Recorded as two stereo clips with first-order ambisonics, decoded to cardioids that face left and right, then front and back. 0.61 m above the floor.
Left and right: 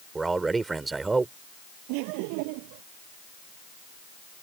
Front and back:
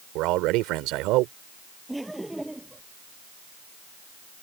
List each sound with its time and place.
0.1 s a man speaking: 165° right
1.9 s laughter: 95° right